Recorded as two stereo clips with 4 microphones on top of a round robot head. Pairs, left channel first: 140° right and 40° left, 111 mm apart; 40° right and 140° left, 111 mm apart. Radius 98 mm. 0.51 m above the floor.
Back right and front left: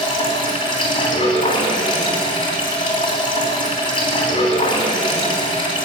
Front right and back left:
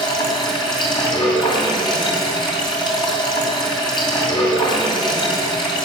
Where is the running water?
95° right, 3 m.